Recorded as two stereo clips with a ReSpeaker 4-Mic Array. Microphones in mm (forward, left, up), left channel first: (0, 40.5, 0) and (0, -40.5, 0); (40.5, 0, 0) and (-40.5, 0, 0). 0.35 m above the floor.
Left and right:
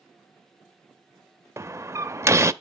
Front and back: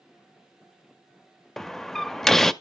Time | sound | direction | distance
1.6 | a door slam | 80° right | 0.6 m